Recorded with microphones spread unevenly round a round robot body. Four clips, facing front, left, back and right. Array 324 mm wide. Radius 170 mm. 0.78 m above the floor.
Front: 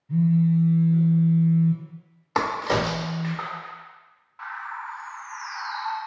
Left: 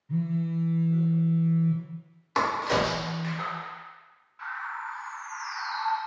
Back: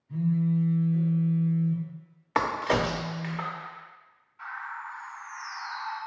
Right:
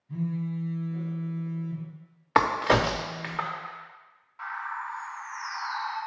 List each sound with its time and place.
0.1 s a phone buzzing: 30° left, 1.1 m
2.4 s a crack: 65° right, 0.6 m
4.4 s a bird: 20° right, 1.3 m